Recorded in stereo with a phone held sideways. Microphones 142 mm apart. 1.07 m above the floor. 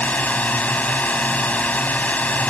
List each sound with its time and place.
0.0 s a drone: 10° left (ahead or behind)